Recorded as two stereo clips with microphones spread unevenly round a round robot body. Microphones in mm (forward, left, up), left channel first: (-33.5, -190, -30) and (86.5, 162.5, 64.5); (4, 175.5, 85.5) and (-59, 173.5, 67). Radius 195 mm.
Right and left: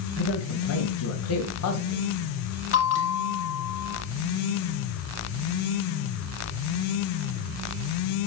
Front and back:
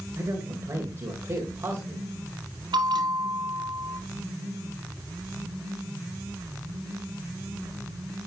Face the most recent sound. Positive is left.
turn(degrees=-170)